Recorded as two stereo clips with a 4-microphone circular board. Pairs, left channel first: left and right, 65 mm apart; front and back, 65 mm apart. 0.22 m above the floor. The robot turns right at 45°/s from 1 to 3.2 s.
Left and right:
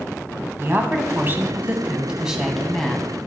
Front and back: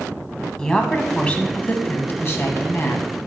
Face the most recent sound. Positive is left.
turn(degrees=25)